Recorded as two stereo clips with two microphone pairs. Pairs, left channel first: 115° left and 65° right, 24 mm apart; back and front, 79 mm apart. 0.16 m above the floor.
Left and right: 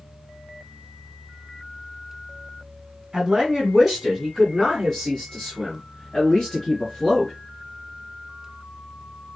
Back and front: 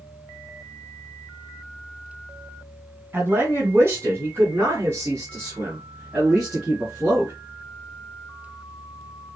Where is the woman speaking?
25° right, 1.5 m; by 7.3 s 55° left, 3 m.